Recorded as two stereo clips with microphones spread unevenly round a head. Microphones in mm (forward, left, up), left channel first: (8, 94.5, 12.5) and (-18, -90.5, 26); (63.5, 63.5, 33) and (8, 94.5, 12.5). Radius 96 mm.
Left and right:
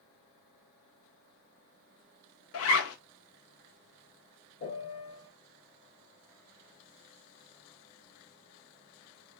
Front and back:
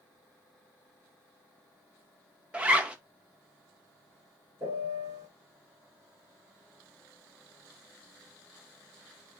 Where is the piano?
110° left, 3 m.